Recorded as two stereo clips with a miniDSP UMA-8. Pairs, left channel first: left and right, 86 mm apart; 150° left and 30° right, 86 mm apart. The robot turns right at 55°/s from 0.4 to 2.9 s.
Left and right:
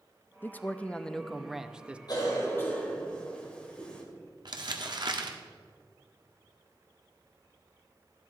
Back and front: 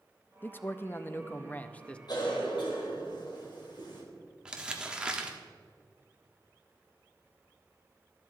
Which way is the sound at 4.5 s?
110° right.